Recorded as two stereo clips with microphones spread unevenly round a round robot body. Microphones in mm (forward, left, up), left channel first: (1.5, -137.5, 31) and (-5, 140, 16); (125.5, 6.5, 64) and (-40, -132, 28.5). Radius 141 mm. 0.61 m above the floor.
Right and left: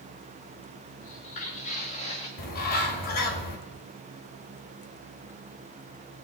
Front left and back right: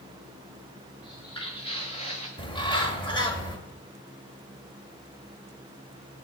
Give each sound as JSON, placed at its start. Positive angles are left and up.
{"t": 1.0, "sound": "footsteps", "azimuth_deg": -25, "distance_m": 4.0}
{"t": 2.4, "sound": "a bird", "azimuth_deg": -30, "distance_m": 2.5}